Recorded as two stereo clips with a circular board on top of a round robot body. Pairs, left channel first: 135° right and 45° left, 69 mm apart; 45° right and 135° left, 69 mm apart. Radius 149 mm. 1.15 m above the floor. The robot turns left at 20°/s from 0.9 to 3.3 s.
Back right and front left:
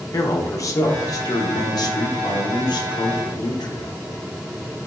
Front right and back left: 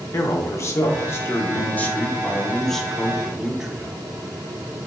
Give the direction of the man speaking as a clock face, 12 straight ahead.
3 o'clock.